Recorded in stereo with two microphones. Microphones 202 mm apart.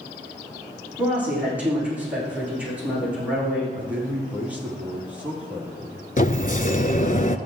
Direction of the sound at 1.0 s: 10° right (ahead or behind).